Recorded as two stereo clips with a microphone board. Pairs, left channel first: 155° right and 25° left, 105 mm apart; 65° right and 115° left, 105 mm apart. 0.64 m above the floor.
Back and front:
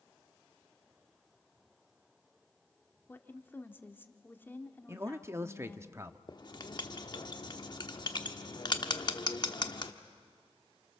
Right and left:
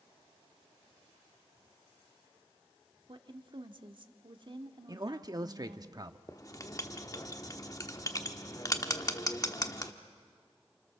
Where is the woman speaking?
135° left, 1.5 m.